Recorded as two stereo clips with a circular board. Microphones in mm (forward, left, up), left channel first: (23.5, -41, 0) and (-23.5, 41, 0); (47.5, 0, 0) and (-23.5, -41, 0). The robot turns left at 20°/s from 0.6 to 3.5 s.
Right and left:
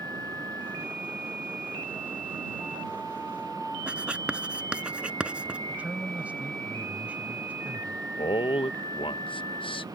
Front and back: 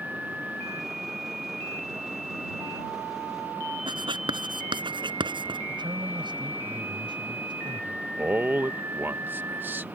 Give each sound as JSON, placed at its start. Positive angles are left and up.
{"t": 3.9, "sound": "writing", "azimuth_deg": -160}
{"t": 5.7, "sound": "a man speaking", "azimuth_deg": -165}
{"t": 8.2, "sound": "a man speaking", "azimuth_deg": -85}